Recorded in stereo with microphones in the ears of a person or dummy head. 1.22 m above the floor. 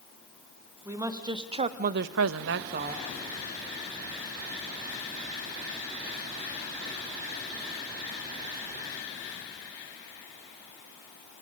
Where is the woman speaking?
5° right (ahead or behind), 2 m; by 3.0 s 45° right (ahead or behind), 1.4 m.